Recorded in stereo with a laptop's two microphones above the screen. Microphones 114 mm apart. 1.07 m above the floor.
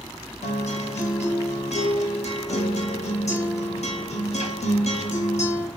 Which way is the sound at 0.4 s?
80° left.